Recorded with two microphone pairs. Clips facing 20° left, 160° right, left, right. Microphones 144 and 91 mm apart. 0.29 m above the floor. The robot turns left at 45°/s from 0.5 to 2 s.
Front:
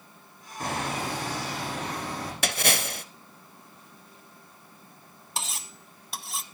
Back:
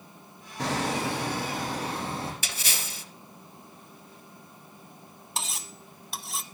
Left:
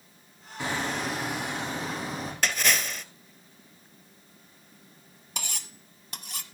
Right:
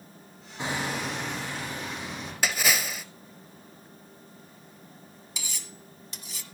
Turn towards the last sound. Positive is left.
turn(degrees=110)